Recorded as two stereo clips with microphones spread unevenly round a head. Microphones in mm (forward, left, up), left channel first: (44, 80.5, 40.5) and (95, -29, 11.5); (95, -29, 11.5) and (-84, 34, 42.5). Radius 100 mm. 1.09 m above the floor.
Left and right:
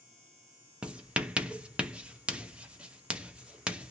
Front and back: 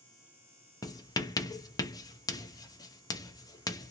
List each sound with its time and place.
0.8 s writing: 25° right, 0.7 m